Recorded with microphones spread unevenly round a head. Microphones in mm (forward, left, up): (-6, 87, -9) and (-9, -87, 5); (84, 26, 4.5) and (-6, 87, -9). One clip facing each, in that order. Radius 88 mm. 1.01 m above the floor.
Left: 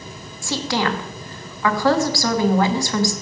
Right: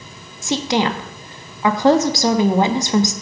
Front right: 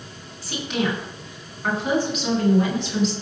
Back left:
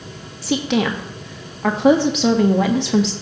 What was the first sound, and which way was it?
A woman speaking, 165° right.